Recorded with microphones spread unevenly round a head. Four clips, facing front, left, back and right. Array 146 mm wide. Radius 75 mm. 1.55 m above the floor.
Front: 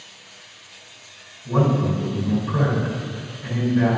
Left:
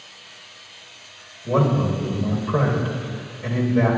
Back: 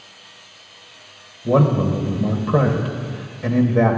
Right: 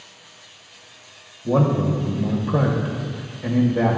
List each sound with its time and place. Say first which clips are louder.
1.4 s a man speaking: right 1 dB, back 4 dB; 165° right, 1.1 m